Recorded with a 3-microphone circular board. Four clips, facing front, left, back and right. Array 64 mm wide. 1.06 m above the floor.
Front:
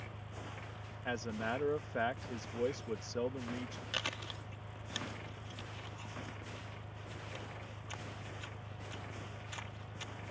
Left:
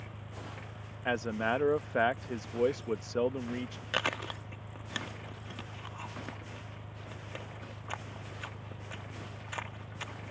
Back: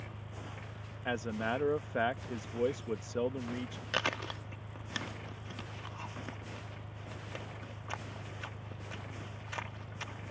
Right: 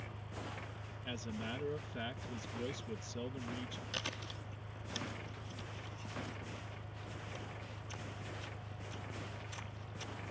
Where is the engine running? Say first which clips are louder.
Left 1 dB, back 1 dB; 95° left.